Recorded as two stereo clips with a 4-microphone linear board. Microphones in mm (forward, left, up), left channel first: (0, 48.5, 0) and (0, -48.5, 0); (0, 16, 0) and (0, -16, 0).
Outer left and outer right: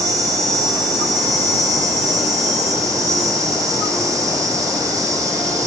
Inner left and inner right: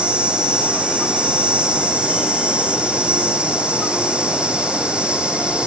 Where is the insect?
40° right (ahead or behind), 2.5 m.